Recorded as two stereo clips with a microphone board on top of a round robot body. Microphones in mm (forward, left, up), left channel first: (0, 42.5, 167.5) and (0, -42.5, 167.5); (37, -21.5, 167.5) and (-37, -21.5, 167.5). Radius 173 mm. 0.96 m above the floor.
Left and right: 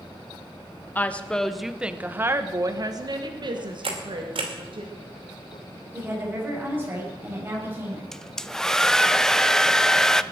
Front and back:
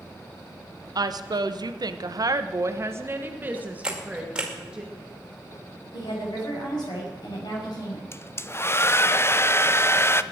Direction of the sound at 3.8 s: 100° right.